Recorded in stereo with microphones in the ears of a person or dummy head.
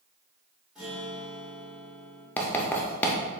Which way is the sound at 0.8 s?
Centre (ahead or behind).